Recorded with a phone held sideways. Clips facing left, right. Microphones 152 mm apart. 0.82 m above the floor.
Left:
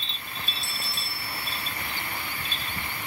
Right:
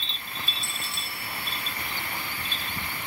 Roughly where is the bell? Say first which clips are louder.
Even; left.